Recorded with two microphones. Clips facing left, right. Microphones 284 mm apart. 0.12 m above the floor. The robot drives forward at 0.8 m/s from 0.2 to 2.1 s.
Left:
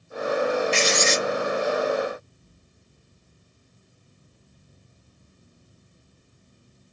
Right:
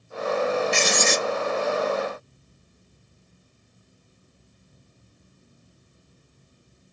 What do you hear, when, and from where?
0.7 s writing: 55° right (ahead or behind), 0.8 m